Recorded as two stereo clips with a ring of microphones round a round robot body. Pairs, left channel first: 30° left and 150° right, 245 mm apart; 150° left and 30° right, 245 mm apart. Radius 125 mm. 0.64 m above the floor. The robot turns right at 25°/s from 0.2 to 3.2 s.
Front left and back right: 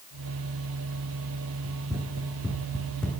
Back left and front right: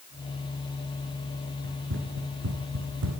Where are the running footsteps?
80° right, 3.5 m; by 3.2 s 55° right, 3 m.